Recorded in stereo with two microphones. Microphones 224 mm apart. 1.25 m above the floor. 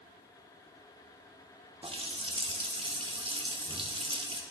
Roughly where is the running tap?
Right.